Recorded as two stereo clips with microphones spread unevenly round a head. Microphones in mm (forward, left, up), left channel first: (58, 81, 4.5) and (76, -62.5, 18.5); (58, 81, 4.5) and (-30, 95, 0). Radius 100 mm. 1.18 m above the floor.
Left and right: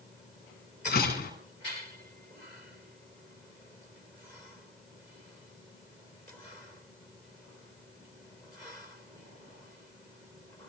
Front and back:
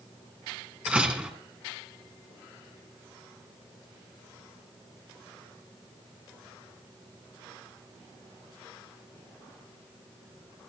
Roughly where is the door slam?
Left.